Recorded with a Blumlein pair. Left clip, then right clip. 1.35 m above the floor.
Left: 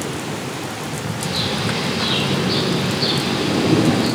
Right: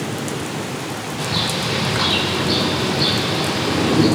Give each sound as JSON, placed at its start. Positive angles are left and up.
{"t": 1.2, "sound": "a bird", "azimuth_deg": -55, "distance_m": 4.5}